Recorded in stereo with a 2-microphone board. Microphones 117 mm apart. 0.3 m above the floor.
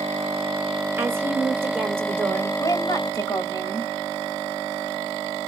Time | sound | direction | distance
1.0 | a woman speaking | 20° right (ahead or behind) | 1.1 m
2.6 | a woman speaking | 35° left (ahead or behind) | 1.4 m